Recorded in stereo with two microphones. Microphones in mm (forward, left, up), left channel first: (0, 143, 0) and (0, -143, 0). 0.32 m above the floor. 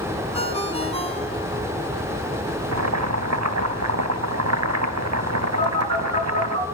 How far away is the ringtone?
About 2.5 m.